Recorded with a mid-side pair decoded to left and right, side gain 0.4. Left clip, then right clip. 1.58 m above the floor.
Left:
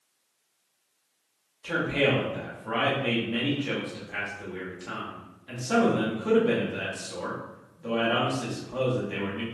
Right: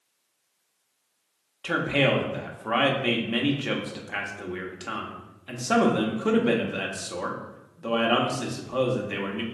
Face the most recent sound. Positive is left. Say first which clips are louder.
# right 2 dB
turn(degrees=-55)